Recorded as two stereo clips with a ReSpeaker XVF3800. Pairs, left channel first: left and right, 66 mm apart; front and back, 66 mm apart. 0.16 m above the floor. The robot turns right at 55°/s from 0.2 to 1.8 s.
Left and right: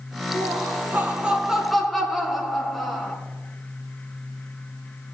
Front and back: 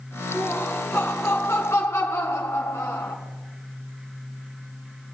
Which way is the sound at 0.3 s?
80° right.